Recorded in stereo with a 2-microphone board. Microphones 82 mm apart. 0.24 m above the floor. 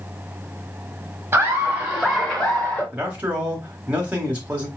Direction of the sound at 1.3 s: 30° right (ahead or behind).